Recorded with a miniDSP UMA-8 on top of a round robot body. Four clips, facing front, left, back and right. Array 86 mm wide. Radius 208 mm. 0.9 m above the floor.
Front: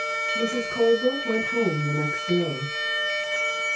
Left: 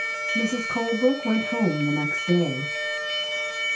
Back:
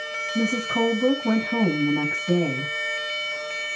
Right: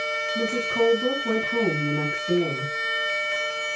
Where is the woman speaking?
135° left, 8.5 m.